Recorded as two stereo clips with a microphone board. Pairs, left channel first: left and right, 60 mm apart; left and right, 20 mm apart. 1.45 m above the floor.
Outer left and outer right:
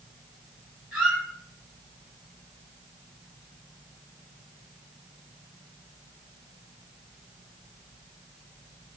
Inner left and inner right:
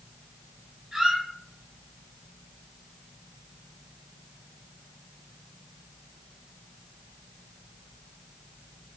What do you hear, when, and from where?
0.9 s a squeak: 15° right (ahead or behind), 4.5 m